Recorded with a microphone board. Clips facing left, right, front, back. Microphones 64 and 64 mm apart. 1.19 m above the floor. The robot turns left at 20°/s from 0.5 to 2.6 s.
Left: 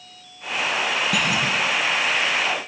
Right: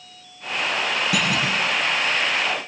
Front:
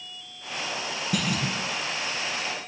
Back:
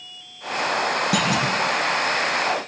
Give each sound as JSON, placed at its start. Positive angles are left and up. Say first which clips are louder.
{"t": 1.1, "sound": "a clunk", "louder": "even, back 3 dB", "azimuth_deg": 180, "distance_m": 6.0}